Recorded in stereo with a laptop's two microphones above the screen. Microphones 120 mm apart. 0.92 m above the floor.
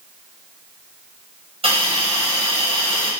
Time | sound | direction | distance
1.6 | a hiss | 60° right (ahead or behind) | 4 m